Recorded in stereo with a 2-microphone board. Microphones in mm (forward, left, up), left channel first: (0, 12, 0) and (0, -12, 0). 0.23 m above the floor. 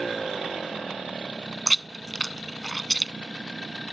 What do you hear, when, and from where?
1.7 s chewing: 10° left (ahead or behind)